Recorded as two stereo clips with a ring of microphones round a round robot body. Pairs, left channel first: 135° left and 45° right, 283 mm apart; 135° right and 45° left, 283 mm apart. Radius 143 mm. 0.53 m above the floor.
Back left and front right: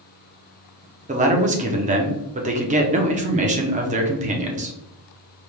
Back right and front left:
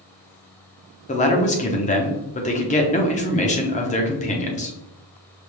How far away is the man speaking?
About 0.8 m.